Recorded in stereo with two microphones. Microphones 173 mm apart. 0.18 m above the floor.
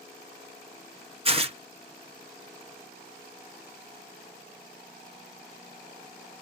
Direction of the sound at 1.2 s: 35° right (ahead or behind).